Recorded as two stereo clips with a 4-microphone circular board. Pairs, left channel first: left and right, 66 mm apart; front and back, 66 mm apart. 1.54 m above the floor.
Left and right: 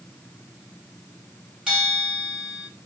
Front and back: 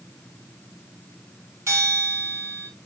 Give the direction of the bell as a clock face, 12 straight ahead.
5 o'clock.